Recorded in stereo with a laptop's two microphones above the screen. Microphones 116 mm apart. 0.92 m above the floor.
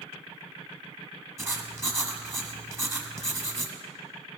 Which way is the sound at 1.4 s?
25° right (ahead or behind).